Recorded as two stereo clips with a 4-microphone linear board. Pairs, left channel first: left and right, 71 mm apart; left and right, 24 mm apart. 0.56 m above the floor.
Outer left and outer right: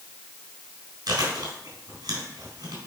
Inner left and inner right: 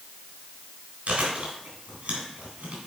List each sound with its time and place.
1.1 s chewing: 70° right (ahead or behind), 3.5 m